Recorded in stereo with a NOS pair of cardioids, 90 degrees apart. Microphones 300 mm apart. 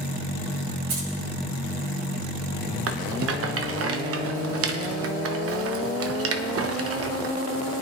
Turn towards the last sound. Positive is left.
turn(degrees=-50)